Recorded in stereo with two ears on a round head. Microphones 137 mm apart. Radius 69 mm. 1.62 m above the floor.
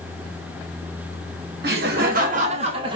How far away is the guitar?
No guitar in this recording.